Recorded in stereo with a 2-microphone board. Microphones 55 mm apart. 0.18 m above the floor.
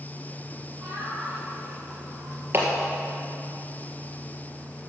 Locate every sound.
0.8 s laughter: 30° right (ahead or behind), 4 m; by 2.3 s 15° right (ahead or behind), 3.5 m
2.5 s a clap: 35° right (ahead or behind), 2.5 m